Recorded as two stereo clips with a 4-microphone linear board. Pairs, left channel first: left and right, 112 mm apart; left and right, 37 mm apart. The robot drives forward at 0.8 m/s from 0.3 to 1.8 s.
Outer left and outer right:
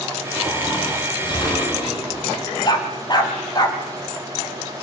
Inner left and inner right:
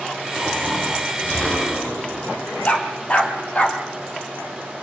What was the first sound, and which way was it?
Snoring, 35° left (ahead or behind).